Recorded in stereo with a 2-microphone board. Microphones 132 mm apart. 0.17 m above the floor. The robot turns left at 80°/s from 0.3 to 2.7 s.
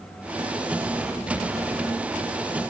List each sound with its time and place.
Only background noise.